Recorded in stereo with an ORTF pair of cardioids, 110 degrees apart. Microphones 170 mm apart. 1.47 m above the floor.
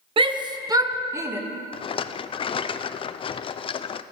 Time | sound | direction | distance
0.2 | a shout | 30° right | 1.0 m
1.7 | a rattle | 35° left | 0.5 m